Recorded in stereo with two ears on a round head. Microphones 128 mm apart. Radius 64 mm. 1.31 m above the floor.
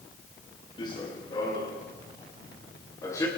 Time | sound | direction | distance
0.8 | running footsteps | 30° left (ahead or behind) | 8 m